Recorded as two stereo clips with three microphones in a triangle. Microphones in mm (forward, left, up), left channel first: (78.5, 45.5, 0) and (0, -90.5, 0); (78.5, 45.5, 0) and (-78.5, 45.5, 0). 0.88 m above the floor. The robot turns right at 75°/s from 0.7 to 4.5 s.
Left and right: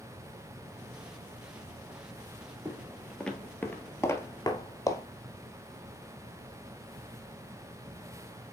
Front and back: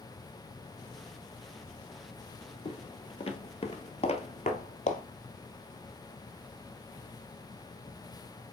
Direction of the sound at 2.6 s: 45° right.